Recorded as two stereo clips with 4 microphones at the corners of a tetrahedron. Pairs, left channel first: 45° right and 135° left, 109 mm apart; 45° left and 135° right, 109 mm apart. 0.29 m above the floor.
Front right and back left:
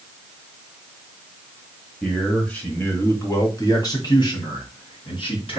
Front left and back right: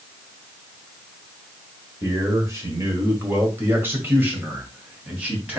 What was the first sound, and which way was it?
A man speaking, 125° right.